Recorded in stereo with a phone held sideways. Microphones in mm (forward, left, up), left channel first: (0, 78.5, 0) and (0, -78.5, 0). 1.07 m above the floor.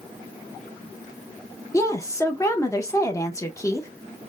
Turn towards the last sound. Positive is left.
turn(degrees=20)  # may be behind; listen again after turning